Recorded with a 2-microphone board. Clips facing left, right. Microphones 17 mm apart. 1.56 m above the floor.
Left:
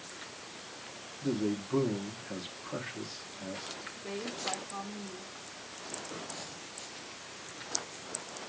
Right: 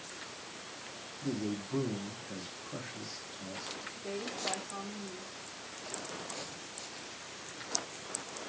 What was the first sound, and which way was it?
A man speaking, 50° left (ahead or behind).